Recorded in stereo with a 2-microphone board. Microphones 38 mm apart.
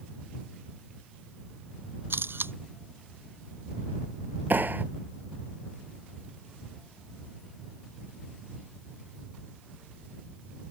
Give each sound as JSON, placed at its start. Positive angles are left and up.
{"t": 2.1, "sound": "a camera shutter", "side_deg": -85}
{"t": 4.5, "sound": "a clap", "side_deg": -60}